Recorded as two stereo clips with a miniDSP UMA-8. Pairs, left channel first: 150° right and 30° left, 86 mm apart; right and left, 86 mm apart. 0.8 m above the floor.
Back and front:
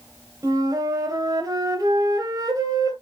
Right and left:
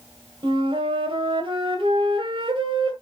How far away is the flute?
About 2 m.